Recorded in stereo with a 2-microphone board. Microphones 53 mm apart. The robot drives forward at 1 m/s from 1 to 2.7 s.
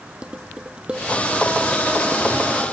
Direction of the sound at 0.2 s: 20° right (ahead or behind).